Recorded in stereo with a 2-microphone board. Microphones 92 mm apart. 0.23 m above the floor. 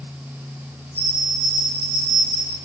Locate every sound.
0.9 s a bell: 85° left, 3.5 m